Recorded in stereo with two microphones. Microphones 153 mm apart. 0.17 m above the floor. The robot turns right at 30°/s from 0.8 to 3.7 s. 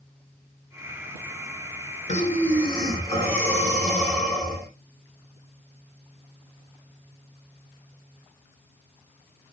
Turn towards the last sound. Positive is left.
turn(degrees=170)